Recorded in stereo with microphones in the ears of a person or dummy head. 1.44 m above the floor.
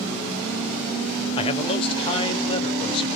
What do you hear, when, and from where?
1.4 s a man speaking: 30° left (ahead or behind), 0.8 m